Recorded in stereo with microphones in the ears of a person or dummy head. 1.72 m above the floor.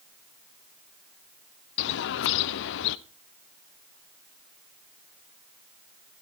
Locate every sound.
1.8 s a bird: 70° left (ahead or behind), 0.6 m